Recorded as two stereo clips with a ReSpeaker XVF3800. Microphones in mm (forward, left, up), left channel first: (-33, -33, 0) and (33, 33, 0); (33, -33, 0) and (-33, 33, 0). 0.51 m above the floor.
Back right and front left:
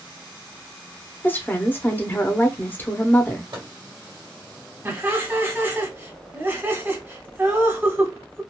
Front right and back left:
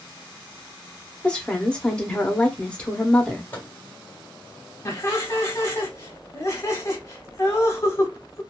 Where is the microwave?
20° left, 1.3 m.